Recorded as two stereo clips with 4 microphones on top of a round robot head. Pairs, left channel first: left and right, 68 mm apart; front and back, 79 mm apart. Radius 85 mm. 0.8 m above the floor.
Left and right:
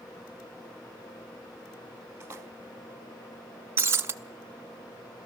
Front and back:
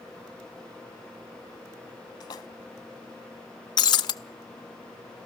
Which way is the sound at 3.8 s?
35° right.